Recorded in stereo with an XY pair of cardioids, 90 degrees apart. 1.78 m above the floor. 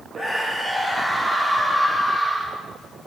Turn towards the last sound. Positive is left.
turn(degrees=-35)